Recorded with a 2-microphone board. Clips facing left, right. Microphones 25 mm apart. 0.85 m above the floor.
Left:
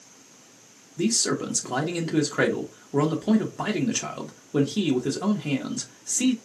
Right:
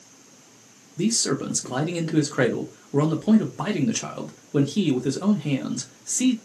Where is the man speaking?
Centre (ahead or behind), 0.6 m.